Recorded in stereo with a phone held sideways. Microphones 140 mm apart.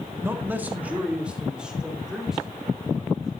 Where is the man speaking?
15° right (ahead or behind), 1.5 m; by 3.3 s centre (ahead or behind), 5 m.